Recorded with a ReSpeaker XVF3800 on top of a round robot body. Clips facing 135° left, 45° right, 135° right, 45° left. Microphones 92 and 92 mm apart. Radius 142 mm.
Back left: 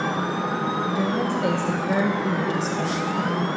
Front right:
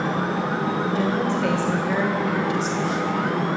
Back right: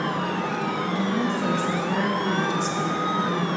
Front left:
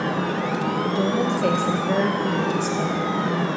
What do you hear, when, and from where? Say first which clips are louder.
0.8 s a woman speaking: front right 1 dB, front left 3 dB; 45° left, 2.5 m; by 3.5 s 95° left, 3.5 m